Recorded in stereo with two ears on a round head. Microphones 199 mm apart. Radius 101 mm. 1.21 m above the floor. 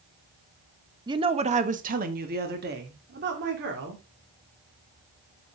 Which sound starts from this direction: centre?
A woman speaking, at 1.1 s.